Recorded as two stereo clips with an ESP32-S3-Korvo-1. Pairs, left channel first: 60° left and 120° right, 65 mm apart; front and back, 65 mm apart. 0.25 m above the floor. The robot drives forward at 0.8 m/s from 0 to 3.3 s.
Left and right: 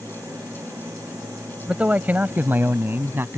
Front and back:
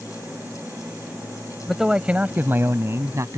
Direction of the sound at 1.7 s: 90° right.